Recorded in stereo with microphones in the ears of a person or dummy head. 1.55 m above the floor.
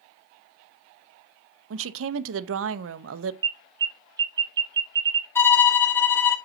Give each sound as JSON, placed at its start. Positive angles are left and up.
{"t": 1.7, "sound": "a woman speaking", "side_deg": -75, "distance_m": 0.6}
{"t": 3.4, "sound": "an alarm", "side_deg": -25, "distance_m": 0.8}
{"t": 5.3, "sound": "a violin", "side_deg": 15, "distance_m": 1.3}